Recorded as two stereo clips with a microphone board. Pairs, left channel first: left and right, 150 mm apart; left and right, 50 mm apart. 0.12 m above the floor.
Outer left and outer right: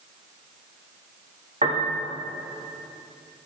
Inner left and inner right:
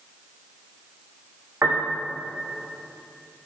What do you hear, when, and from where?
1.6 s a piano: 50° right (ahead or behind), 4 m